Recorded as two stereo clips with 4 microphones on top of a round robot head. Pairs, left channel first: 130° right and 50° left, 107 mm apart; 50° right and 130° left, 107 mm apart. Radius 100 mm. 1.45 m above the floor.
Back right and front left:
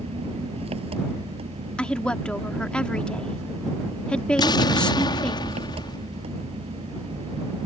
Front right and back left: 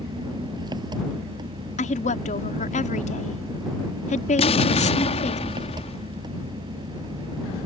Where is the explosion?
80° right.